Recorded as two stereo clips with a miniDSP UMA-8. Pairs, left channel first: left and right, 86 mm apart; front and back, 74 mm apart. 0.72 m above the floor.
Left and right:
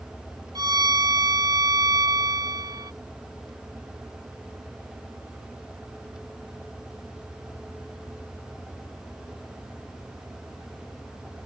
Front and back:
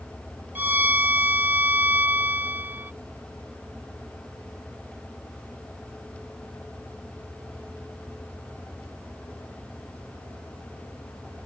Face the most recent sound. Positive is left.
turn(degrees=-120)